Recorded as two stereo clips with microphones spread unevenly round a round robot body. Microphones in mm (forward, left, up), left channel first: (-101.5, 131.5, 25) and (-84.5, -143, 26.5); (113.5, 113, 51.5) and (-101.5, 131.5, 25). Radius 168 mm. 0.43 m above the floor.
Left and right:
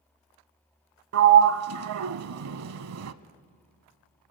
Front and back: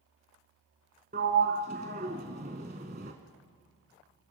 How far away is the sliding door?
About 0.7 m.